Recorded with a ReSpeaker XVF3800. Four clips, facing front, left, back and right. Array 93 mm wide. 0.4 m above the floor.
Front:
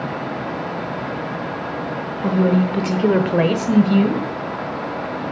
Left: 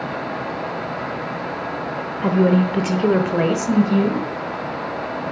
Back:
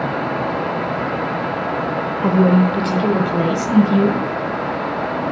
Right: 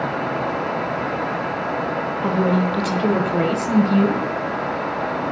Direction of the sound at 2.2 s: 140° left.